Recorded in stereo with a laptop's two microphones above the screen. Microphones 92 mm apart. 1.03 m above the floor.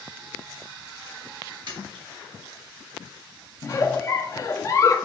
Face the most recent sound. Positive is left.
turn(degrees=35)  # may be behind; listen again after turning